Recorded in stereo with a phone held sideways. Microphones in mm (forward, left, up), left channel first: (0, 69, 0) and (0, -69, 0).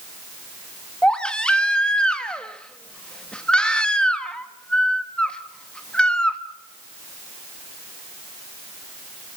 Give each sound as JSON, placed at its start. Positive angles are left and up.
{"t": 1.0, "sound": "a baby crying", "side_deg": 5, "distance_m": 1.4}